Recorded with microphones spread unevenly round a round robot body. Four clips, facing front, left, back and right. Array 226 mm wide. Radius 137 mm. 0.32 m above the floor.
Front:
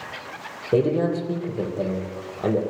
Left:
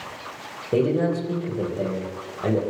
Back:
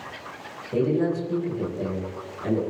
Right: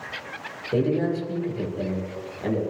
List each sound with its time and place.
0.7 s a man speaking: 20° left, 9 m